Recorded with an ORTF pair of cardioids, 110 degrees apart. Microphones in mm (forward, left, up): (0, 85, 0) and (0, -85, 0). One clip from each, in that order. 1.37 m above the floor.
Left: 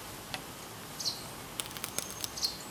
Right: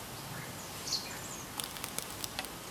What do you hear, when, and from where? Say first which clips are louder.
1.6 s a crack: left 2 dB; 10° left, 0.5 m